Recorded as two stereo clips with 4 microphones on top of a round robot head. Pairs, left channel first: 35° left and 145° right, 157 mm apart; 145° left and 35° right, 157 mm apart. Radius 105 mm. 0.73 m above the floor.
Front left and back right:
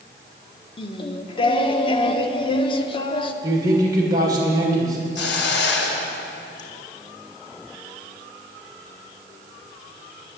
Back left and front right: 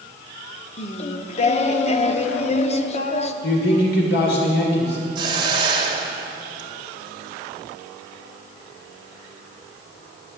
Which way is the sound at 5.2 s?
30° left.